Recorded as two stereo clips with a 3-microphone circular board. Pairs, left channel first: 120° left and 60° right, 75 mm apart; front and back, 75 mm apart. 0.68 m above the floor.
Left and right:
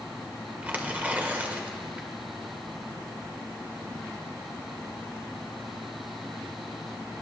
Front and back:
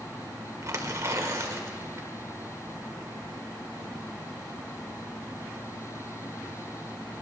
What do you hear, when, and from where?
0.6 s tearing paper: 130° right, 1.0 m